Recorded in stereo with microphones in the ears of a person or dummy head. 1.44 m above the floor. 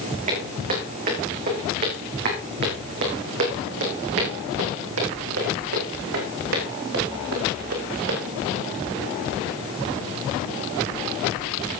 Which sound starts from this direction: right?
Footsteps, at 0.3 s.